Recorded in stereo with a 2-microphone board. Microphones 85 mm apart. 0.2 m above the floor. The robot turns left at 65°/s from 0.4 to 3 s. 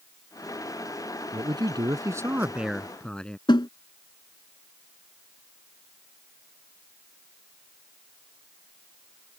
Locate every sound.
1.3 s a man speaking: 85° right; by 3.4 s 170° left
3.5 s a snare drum: 65° left (ahead or behind)